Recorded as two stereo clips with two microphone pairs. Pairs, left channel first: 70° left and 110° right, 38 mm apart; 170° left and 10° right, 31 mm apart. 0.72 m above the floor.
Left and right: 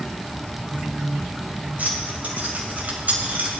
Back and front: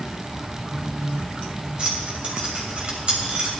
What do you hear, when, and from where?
1.8 s keys jangling: 65° right, 2 m